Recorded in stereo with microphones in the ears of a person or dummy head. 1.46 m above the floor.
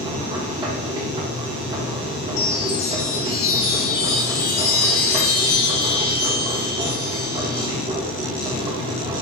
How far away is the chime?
About 2.5 m.